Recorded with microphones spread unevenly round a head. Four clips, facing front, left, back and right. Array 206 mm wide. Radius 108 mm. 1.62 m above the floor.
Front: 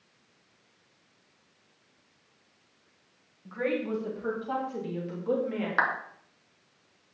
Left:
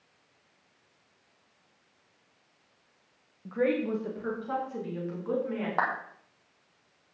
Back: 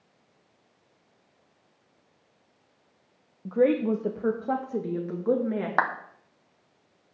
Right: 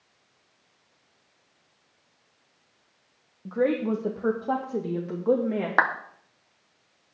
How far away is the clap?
About 1.2 m.